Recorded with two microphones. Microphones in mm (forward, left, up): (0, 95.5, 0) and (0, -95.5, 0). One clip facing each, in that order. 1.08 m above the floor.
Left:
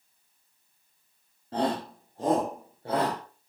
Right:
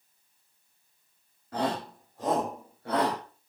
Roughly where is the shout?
Left.